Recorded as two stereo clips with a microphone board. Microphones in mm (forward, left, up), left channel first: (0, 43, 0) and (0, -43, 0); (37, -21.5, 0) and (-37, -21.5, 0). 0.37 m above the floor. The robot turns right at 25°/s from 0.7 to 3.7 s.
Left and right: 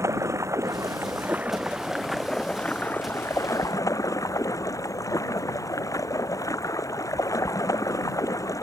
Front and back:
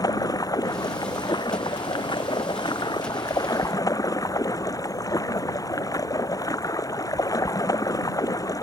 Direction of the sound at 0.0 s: 35° right.